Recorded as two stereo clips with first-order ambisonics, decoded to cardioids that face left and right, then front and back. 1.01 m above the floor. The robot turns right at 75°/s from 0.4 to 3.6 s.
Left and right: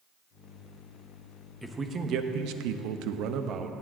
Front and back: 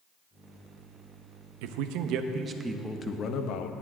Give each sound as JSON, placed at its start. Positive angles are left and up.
{"t": 1.6, "sound": "a man speaking", "azimuth_deg": 180, "distance_m": 0.8}